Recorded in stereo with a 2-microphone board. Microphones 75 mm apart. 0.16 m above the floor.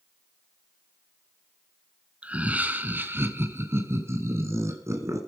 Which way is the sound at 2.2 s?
15° right (ahead or behind).